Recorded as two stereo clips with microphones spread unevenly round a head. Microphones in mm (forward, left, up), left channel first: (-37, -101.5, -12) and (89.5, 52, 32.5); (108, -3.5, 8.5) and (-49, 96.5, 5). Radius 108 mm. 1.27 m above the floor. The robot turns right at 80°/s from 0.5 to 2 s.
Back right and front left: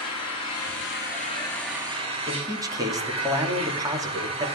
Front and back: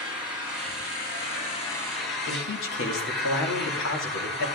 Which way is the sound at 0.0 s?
130° right.